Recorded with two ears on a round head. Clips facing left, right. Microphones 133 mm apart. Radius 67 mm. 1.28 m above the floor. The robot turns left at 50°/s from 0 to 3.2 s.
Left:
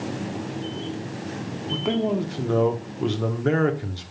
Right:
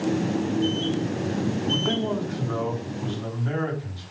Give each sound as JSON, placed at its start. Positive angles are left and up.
{"t": 1.7, "sound": "a man speaking", "azimuth_deg": 175, "distance_m": 1.2}